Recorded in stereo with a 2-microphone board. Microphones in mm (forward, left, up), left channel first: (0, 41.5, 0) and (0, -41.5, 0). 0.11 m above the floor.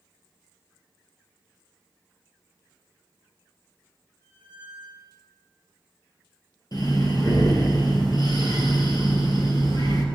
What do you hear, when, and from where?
4.2 s a squeak: 30° left (ahead or behind), 3 m
6.7 s breathing: 55° left (ahead or behind), 1.9 m